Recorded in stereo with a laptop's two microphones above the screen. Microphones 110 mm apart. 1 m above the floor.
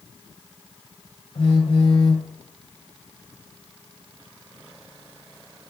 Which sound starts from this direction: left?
A phone buzzing, at 1.4 s.